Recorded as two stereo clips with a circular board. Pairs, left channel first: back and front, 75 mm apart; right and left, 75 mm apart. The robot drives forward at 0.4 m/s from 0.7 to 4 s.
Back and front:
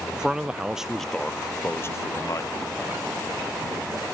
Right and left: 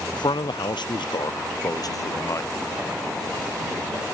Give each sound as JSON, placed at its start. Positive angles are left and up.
{"t": 0.1, "sound": "a man speaking", "azimuth_deg": -80}